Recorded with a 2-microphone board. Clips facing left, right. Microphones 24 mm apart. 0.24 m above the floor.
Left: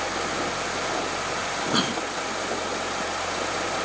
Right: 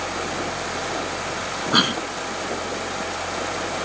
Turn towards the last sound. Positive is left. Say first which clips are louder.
# right 7 dB
turn(degrees=-35)  # may be behind; listen again after turning